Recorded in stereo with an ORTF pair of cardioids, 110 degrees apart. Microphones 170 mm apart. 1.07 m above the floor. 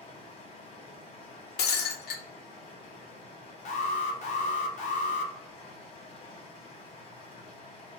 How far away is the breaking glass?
About 0.8 m.